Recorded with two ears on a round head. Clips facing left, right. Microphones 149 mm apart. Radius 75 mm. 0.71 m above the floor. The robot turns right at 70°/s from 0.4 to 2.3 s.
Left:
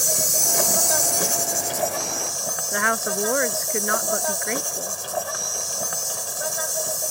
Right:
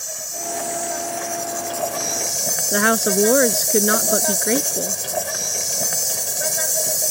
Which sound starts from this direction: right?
A woman speaking, at 2.7 s.